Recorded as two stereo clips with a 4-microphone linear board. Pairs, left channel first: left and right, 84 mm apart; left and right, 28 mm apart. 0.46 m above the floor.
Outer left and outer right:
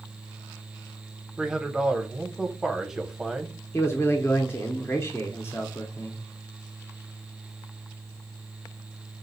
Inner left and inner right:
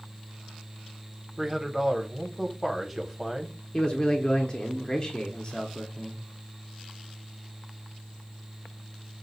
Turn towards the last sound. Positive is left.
turn(degrees=30)  # may be behind; listen again after turning